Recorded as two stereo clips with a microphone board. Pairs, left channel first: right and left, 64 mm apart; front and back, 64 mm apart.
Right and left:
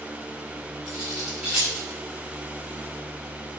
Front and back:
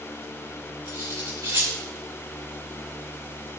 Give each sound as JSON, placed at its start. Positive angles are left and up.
{"t": 0.8, "sound": "cutlery clinking", "azimuth_deg": 165, "distance_m": 7.0}